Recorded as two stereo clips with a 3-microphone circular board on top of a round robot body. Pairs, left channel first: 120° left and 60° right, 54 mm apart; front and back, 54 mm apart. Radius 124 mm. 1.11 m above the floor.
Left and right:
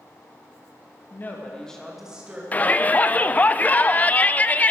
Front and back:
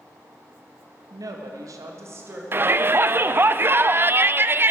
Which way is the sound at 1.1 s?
170° left.